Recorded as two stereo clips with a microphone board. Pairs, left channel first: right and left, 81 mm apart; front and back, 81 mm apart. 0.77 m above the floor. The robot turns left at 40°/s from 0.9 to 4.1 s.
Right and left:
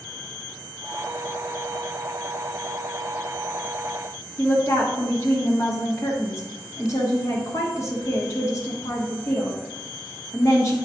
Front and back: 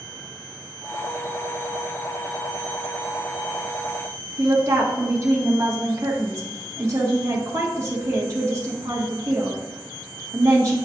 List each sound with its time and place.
4.4 s a woman speaking: 135° right, 1.2 m